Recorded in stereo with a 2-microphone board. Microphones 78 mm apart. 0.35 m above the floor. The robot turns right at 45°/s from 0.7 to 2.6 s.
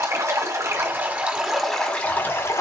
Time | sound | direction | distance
0.0 | running water | 45° right | 1.4 m